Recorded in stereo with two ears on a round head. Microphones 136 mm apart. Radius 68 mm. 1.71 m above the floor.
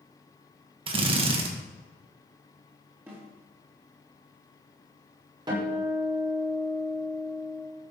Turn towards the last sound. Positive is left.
turn(degrees=-30)  # may be behind; listen again after turning